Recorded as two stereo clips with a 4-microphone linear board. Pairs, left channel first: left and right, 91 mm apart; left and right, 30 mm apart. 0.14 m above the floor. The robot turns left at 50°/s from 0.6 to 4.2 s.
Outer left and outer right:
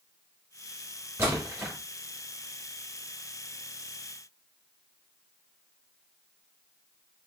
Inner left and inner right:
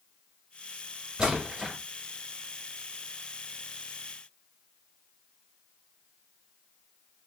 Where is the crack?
No crack in this recording.